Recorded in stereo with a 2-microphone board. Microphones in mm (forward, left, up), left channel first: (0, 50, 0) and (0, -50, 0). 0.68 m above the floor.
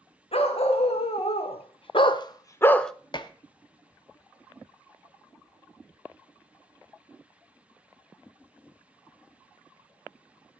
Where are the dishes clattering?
50° left (ahead or behind), 0.7 m.